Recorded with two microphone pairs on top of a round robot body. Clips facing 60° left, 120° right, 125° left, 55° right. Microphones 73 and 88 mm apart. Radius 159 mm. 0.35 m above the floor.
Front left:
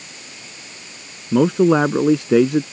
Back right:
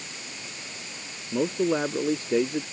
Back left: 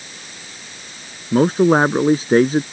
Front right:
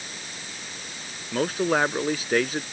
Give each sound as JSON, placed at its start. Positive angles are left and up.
{"t": 1.3, "sound": "a man speaking", "azimuth_deg": 65}